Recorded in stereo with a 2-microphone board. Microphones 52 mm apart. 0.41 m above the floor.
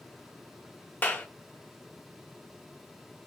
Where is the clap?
35° left (ahead or behind), 1.0 m.